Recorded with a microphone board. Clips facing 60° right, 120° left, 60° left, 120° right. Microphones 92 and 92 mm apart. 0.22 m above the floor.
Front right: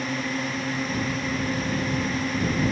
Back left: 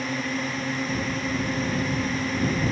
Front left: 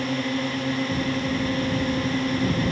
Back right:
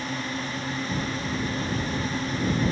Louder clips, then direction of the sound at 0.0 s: Even, front left 6 dB; 30° left.